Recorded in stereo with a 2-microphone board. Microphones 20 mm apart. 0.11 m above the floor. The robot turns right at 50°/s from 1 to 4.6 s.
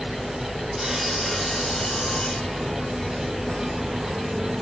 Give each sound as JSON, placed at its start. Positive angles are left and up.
{"t": 0.8, "sound": "sawing", "azimuth_deg": -5, "distance_m": 1.4}